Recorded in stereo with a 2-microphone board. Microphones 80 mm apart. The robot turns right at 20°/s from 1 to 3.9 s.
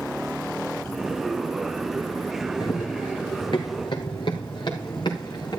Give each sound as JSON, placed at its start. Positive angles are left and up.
{"t": 2.6, "sound": "running footsteps", "side_deg": 75, "distance_m": 1.9}